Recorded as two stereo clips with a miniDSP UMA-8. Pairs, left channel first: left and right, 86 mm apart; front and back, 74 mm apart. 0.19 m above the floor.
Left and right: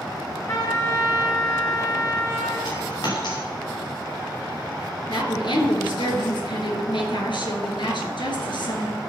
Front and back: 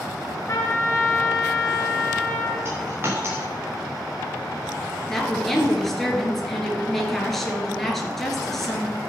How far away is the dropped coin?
About 3 m.